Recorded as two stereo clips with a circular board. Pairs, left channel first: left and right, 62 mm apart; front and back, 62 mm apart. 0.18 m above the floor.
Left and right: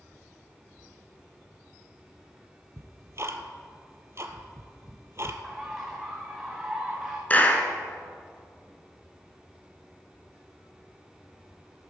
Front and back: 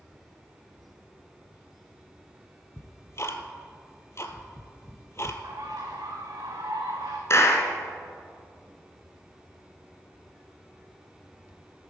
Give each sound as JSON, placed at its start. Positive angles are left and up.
{"t": 2.8, "sound": "ticking", "azimuth_deg": -45, "distance_m": 1.0}
{"t": 5.4, "sound": "a bird", "azimuth_deg": -170, "distance_m": 2.0}
{"t": 7.3, "sound": "a clap", "azimuth_deg": 30, "distance_m": 1.4}